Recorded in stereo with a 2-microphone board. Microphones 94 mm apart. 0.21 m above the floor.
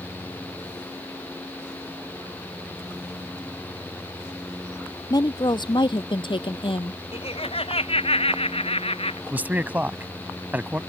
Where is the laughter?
75° left (ahead or behind).